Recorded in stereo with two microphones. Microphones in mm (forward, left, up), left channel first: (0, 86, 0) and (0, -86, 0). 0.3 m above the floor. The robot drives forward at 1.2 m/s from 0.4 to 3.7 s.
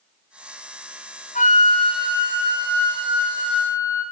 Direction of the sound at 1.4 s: 50° left (ahead or behind).